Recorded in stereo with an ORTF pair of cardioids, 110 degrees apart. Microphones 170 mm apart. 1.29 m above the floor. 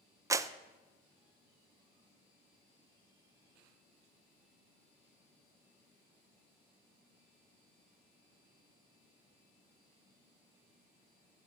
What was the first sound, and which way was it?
A clap, 20° right.